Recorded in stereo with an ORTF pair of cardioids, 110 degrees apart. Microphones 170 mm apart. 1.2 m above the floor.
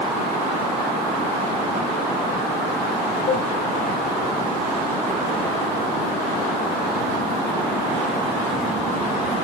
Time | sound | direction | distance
3.3 | a cowbell | 70° left | 4.5 m